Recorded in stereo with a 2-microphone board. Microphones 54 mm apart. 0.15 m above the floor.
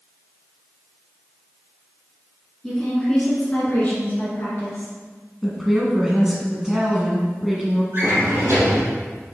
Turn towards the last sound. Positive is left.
turn(degrees=-50)  # may be behind; listen again after turning